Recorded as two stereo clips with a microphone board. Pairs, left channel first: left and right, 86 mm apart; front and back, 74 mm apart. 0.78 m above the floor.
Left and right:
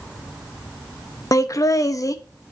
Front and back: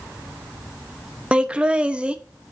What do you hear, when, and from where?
1.3 s laughter: 110° left, 0.5 m